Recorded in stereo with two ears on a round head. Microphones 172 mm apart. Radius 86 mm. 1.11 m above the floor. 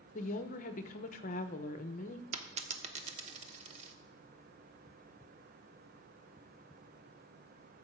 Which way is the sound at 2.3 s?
35° right (ahead or behind).